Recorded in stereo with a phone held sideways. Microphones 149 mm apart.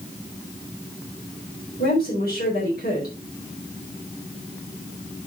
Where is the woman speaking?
75° left (ahead or behind), 4.5 m.